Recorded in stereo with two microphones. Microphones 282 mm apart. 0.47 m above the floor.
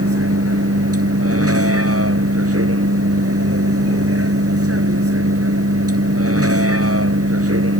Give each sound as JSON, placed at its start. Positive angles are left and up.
{"t": 0.0, "sound": "a vehicle", "side_deg": -55}